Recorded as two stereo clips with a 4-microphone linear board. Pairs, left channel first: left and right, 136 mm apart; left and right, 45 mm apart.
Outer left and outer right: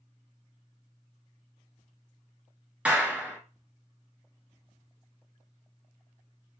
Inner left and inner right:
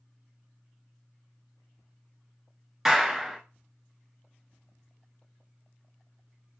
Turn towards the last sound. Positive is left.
turn(degrees=-10)  # may be behind; listen again after turning